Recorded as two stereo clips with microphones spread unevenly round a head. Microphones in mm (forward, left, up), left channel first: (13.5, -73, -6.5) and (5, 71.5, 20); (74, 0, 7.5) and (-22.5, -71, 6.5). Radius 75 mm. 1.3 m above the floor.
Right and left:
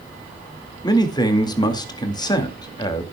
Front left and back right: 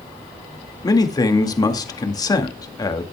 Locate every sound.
0.8 s a man speaking: 20° right, 2.0 m